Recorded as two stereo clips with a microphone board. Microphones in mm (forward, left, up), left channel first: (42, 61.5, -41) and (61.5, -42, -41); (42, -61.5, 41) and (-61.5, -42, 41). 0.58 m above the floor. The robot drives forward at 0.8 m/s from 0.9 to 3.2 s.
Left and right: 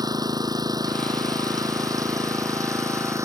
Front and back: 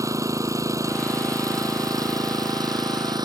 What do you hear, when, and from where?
0.0 s an engine running: 130° right; by 3.2 s 140° right